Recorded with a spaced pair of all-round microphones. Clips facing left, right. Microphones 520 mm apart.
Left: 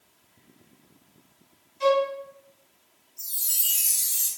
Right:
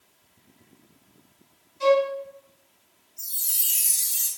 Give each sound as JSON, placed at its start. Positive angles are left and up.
{"t": 1.8, "sound": "a violin", "side_deg": -45, "distance_m": 1.4}
{"t": 3.2, "sound": "a chime", "side_deg": -55, "distance_m": 1.0}